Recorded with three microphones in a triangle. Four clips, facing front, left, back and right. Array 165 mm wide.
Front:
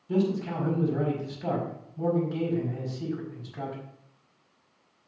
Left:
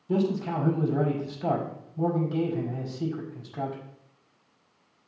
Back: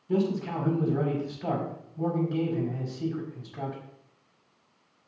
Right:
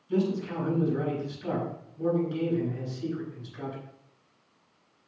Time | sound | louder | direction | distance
0.1 | a man speaking | left 2 dB, even | 95° left | 4.5 m